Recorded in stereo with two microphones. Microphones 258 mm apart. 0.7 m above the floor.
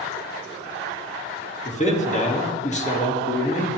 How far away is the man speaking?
About 1.3 m.